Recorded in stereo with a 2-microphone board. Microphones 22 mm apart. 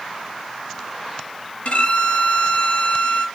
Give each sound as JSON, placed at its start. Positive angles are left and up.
{"t": 1.6, "sound": "a violin", "side_deg": 65, "distance_m": 2.5}